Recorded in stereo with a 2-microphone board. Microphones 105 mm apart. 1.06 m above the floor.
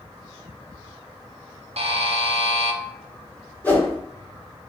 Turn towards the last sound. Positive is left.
turn(degrees=15)  # may be behind; listen again after turning